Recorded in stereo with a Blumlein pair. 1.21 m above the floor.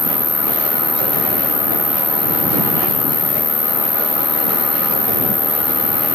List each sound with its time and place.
0.0 s an insect: 10° left